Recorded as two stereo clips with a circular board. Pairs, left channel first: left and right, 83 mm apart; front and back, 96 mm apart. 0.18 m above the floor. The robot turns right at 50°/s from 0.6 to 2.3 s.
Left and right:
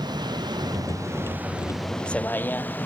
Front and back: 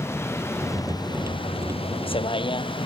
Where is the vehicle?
65° right; by 2.9 s 20° left.